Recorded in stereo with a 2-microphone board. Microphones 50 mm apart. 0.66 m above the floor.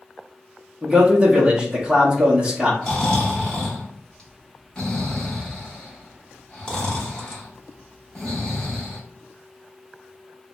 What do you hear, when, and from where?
0.8 s a man speaking: 20° right (ahead or behind), 1.0 m
2.8 s snoring: 15° left (ahead or behind), 1.1 m